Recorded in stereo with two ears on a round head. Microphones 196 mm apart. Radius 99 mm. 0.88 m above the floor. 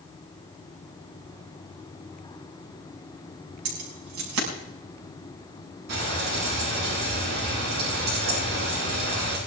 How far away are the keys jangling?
About 5.5 m.